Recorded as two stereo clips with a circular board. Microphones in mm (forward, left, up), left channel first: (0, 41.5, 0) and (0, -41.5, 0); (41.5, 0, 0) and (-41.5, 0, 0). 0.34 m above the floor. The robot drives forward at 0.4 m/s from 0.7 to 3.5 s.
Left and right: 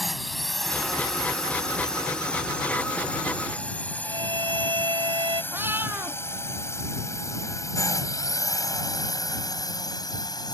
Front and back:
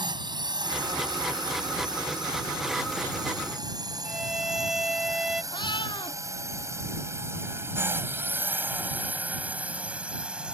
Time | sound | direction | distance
0.0 | a drone | straight behind | ?
4.0 | a violin | 95° right | ?
5.5 | a cat meowing | 25° right | ?